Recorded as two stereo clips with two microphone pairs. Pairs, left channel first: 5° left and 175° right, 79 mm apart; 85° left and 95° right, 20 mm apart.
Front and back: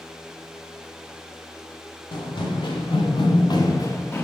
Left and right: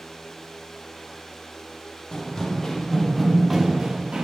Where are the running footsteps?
25° left, 1.1 m; by 4.2 s 60° right, 0.7 m.